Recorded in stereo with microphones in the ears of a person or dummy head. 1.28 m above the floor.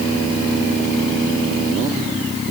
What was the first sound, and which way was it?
Only background noise.